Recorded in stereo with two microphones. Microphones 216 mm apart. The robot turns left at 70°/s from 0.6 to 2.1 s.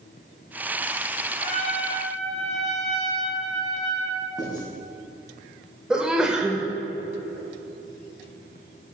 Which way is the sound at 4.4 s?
20° left (ahead or behind).